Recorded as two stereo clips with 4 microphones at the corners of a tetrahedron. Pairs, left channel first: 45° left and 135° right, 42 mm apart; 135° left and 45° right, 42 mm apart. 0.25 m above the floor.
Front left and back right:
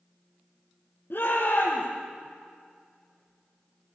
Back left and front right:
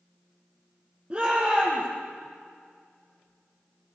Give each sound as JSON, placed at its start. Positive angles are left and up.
{"t": 1.1, "sound": "a shout", "azimuth_deg": 20, "distance_m": 6.5}